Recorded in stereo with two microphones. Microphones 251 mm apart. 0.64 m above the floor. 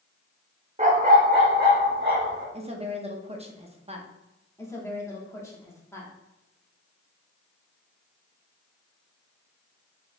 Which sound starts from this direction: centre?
A woman speaking, at 4.6 s.